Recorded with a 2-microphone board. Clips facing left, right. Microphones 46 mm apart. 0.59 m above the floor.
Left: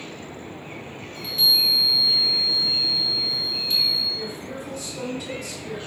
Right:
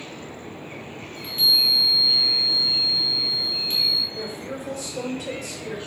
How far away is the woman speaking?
About 1.7 m.